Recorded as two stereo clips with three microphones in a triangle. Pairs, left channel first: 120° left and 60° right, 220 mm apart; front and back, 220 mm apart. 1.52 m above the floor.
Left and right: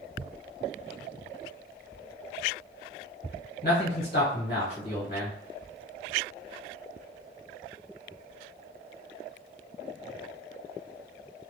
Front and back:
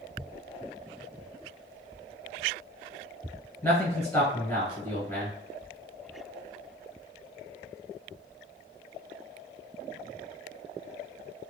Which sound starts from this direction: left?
A man speaking, at 3.6 s.